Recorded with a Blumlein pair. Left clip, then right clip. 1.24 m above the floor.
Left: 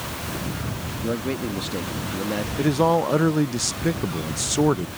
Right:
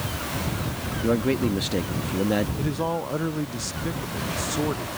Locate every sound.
1.0 s a man speaking: 10° right
2.6 s a man speaking: 65° left